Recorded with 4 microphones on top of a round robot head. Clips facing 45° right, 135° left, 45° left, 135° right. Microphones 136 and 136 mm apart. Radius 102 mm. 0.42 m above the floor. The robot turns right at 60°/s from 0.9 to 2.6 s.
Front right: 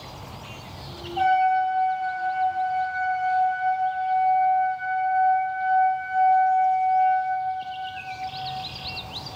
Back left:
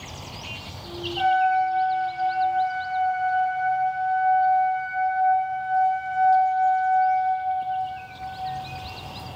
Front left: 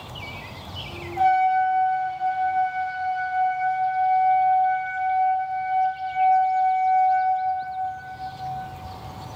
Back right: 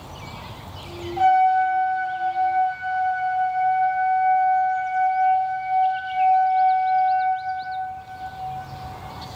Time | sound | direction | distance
1.2 | a trumpet | 85° right | 1.9 m